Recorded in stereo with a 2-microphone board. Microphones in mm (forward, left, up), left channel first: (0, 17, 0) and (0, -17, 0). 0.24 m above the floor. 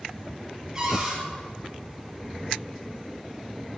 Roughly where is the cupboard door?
Centre.